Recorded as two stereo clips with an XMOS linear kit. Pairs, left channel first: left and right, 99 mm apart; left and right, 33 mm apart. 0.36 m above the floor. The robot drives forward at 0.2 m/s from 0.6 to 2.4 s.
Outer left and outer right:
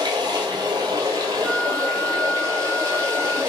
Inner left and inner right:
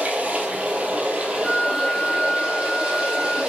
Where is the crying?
I don't hear crying.